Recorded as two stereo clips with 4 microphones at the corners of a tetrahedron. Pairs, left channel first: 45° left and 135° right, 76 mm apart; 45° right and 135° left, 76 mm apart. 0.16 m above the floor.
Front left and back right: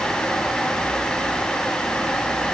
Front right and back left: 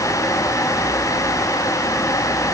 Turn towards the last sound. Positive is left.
No sound to turn to.